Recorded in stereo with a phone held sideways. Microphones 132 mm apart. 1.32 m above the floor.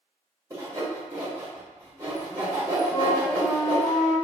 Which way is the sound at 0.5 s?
20° right (ahead or behind).